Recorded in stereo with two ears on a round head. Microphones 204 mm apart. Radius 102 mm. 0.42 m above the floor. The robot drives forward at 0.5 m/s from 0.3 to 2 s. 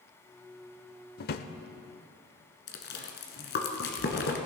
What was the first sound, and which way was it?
A drawer, 40° left (ahead or behind).